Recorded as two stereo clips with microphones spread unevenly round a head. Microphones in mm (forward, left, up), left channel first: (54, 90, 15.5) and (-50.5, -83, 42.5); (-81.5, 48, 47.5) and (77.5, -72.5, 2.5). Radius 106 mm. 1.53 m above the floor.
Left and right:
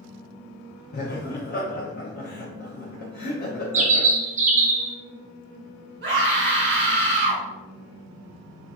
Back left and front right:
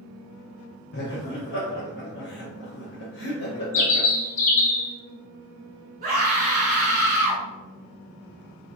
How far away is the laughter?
About 0.7 m.